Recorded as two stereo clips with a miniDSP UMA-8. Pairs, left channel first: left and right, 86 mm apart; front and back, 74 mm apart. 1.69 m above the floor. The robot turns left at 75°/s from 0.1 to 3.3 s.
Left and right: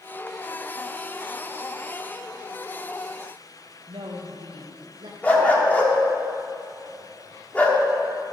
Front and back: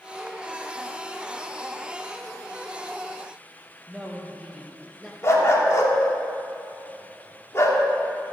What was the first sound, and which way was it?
A woman speaking, 95° right.